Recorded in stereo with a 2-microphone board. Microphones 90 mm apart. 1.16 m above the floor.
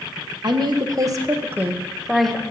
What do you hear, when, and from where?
0.4 s a woman speaking: 55° right (ahead or behind), 1.6 m; by 2.4 s 5° left (ahead or behind), 1.3 m